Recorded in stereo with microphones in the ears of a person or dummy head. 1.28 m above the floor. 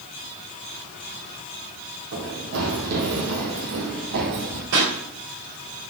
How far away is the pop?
About 4 m.